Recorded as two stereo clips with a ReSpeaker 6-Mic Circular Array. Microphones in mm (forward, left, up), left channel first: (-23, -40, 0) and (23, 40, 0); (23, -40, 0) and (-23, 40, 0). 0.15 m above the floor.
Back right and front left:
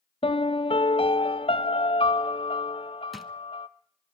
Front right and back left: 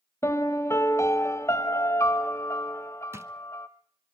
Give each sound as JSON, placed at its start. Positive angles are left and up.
{"t": 0.2, "sound": "a piano", "azimuth_deg": -120, "distance_m": 0.9}
{"t": 3.1, "sound": "a drawer", "azimuth_deg": 150, "distance_m": 0.9}